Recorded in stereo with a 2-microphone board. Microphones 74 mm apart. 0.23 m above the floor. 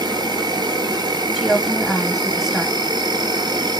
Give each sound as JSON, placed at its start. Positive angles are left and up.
{"t": 0.0, "sound": "an insect", "side_deg": -90, "distance_m": 0.7}
{"t": 1.4, "sound": "a woman speaking", "side_deg": -5, "distance_m": 1.0}